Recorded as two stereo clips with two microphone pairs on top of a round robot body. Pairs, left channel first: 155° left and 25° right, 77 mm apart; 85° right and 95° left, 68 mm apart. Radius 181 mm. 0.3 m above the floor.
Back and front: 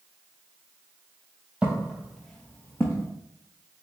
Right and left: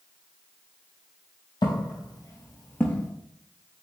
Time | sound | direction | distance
1.6 | footsteps | 100° right | 1.0 m